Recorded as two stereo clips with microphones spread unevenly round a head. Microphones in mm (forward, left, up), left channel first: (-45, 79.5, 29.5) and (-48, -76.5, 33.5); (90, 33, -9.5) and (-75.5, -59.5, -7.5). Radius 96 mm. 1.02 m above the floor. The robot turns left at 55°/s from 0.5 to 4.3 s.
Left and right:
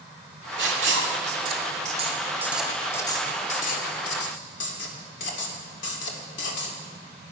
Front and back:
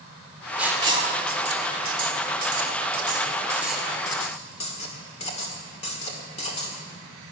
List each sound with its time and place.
0.6 s writing: 65° right, 1.9 m; by 6.8 s 90° left, 1.9 m